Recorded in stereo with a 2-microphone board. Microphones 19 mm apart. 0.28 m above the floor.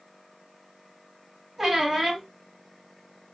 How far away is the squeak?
About 1.6 m.